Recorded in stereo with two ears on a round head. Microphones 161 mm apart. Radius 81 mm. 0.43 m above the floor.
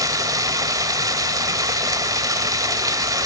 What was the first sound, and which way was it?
Running water, 20° right (ahead or behind).